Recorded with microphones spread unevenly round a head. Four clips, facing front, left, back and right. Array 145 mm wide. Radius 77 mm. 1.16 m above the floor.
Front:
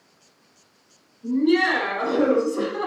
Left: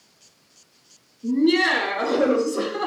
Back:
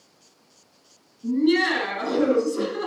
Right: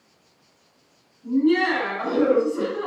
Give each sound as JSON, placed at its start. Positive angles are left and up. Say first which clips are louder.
{"t": 1.2, "sound": "laughter", "louder": "even, front 1 dB", "azimuth_deg": 120, "distance_m": 3.0}